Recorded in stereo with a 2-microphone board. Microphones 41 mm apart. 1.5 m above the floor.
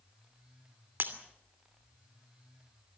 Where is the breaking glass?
55° right (ahead or behind), 2.5 m.